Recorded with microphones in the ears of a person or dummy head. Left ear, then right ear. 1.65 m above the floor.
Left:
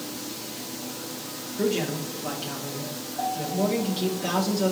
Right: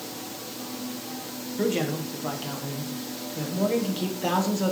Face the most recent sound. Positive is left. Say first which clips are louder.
# even
turn(degrees=-30)  # may be behind; listen again after turning